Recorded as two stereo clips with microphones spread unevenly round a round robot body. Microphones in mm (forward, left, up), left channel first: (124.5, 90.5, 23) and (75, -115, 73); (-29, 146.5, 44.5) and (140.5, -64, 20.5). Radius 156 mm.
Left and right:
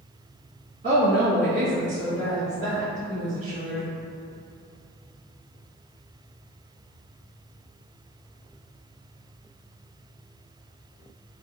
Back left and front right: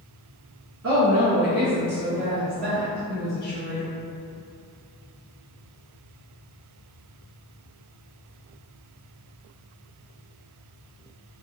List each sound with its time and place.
0.8 s a woman speaking: 50° right, 1.5 m; by 3.9 s 135° right, 1.7 m